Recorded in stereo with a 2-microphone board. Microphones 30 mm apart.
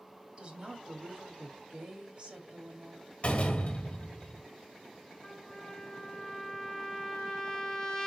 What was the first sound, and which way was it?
A woman speaking, 45° right (ahead or behind).